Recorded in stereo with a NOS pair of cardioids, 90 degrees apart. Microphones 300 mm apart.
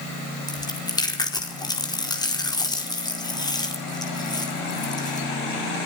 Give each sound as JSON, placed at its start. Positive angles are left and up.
{"t": 0.5, "sound": "chewing", "azimuth_deg": 15, "distance_m": 4.5}